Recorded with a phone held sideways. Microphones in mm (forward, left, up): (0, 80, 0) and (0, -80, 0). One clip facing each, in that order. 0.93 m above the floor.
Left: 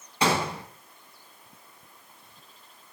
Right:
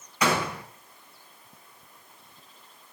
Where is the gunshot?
30° left (ahead or behind), 3 m.